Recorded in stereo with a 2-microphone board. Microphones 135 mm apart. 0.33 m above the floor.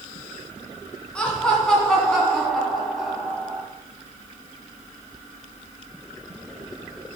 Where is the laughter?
10° left (ahead or behind), 2.5 m; by 3.6 s 10° right (ahead or behind), 1.6 m.